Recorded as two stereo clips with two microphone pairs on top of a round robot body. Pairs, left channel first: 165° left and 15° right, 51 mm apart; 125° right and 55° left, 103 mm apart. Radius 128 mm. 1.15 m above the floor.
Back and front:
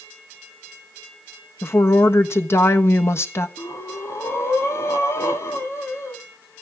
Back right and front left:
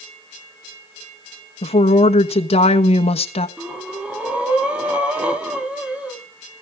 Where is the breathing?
130° left, 2.5 m.